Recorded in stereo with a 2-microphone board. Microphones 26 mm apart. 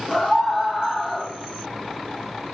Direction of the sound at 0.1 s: 40° left (ahead or behind).